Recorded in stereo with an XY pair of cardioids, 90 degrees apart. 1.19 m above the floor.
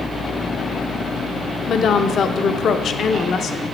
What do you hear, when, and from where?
1.7 s a woman speaking: 65° left, 0.7 m